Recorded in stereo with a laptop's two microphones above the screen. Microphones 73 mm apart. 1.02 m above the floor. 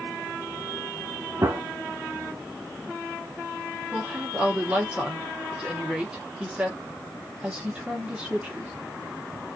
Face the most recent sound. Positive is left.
turn(degrees=-15)  # may be behind; listen again after turning